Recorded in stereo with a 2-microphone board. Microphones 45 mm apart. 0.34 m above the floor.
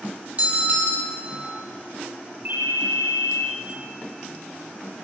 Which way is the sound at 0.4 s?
35° right (ahead or behind).